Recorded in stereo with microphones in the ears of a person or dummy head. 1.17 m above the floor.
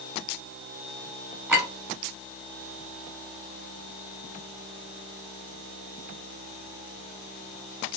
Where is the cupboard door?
I don't hear a cupboard door.